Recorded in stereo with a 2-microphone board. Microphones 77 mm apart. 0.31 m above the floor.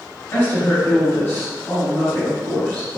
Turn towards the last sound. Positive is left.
turn(degrees=30)  # may be behind; listen again after turning